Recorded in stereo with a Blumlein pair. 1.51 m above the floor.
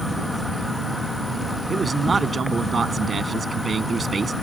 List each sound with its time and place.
0.0 s an insect: straight ahead
1.7 s a man speaking: 15° right